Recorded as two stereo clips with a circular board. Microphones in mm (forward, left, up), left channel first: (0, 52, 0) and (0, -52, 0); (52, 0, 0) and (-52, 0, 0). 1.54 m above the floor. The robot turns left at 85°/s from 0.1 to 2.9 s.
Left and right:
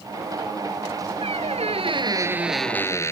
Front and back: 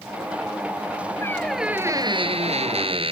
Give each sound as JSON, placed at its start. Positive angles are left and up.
{"t": 1.2, "sound": "a squeak", "azimuth_deg": -65}